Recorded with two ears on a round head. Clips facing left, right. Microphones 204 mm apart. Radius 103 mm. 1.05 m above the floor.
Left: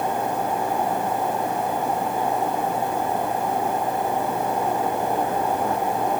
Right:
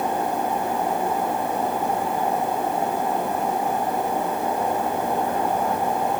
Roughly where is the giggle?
No giggle in this recording.